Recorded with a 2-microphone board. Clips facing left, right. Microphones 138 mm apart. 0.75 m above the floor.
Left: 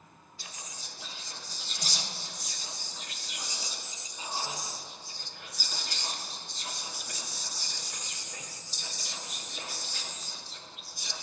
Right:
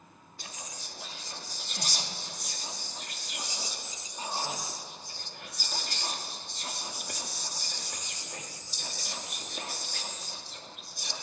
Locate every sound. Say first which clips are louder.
0.4 s whispering: right 3 dB; 55° right (ahead or behind), 1.5 m